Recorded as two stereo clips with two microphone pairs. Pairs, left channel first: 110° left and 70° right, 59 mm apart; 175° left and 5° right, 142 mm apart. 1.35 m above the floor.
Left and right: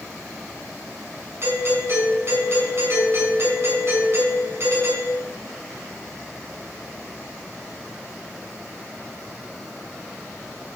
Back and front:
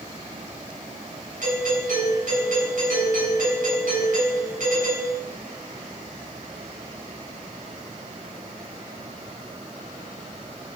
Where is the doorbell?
25° right, 7.5 m.